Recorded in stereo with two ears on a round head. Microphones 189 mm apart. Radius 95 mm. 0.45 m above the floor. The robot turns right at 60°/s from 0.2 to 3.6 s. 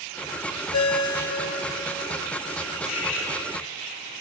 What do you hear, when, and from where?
0.7 s a ringtone: 95° left, 0.9 m; by 2.0 s 175° left, 0.9 m
2.8 s cutlery clinking: 70° left (ahead or behind), 2.5 m; by 3.3 s 80° left, 2.5 m